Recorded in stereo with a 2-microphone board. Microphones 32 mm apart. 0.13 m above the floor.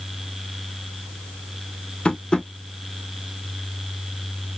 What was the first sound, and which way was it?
Tapping, 30° left (ahead or behind).